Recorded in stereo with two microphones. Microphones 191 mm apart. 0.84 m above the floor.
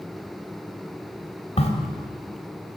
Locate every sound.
1.6 s a crack: 35° left (ahead or behind), 3 m